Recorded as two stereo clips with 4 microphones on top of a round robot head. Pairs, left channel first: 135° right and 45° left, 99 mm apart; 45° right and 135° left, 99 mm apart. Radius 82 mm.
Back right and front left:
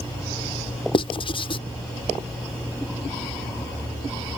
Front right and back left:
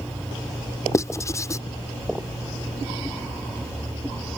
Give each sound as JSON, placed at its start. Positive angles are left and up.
{"t": 0.9, "sound": "writing", "azimuth_deg": -105}